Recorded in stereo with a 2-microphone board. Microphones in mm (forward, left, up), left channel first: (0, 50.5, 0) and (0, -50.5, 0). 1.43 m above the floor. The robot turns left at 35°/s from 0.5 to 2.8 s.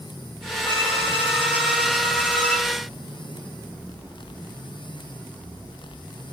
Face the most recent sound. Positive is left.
turn(degrees=50)